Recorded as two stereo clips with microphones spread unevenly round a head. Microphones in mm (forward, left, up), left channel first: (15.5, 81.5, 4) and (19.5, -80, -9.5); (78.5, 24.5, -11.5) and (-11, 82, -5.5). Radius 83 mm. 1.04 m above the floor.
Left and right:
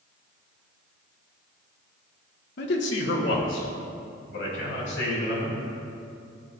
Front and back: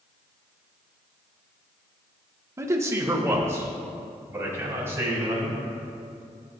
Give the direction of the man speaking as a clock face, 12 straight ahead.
9 o'clock.